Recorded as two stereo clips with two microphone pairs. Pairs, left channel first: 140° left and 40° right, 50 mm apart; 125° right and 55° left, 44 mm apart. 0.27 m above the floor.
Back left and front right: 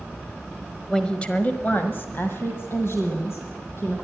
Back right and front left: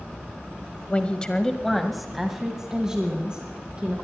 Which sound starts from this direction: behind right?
A woman speaking, at 0.9 s.